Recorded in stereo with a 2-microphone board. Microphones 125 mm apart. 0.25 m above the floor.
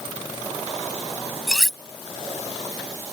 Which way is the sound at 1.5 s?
5° left (ahead or behind).